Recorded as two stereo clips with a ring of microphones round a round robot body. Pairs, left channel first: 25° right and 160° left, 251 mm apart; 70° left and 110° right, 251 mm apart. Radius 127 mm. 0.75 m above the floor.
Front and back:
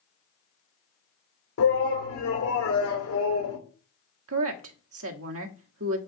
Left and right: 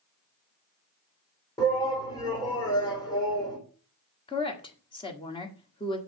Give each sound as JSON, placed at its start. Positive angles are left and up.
{"t": 1.6, "sound": "a shout", "azimuth_deg": -5, "distance_m": 3.0}
{"t": 4.3, "sound": "a woman speaking", "azimuth_deg": 135, "distance_m": 1.4}